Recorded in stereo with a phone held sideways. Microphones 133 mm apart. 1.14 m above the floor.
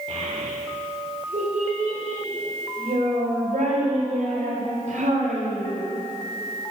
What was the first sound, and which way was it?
A child speaking, 50° right (ahead or behind).